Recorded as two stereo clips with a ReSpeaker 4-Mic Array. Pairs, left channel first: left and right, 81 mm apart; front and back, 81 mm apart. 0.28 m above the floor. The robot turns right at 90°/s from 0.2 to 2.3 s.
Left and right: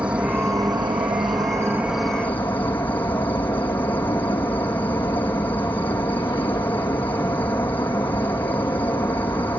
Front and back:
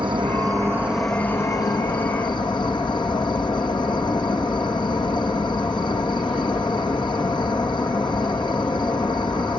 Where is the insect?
165° right, 2 m; by 9.6 s 25° left, 2 m.